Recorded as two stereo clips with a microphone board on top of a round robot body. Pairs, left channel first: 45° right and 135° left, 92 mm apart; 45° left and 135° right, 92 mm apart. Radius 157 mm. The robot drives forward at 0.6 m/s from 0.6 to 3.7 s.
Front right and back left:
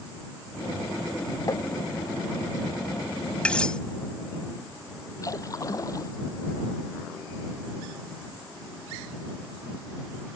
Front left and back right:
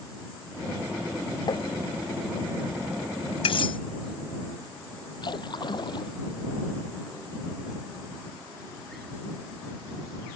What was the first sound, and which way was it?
Tapping, 5° left.